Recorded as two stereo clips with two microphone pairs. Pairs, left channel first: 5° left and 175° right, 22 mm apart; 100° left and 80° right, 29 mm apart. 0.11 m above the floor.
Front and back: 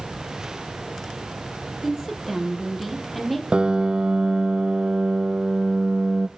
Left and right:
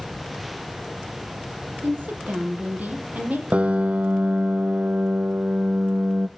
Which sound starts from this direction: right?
A woman speaking, at 1.8 s.